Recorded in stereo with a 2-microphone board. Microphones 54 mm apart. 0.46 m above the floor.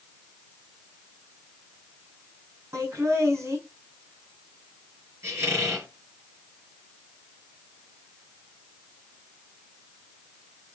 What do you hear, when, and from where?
2.7 s laughter: 55° right (ahead or behind), 4 m
5.2 s a squeak: 50° right (ahead or behind), 7.5 m